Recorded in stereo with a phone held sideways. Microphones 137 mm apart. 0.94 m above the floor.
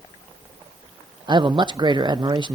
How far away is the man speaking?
About 0.6 m.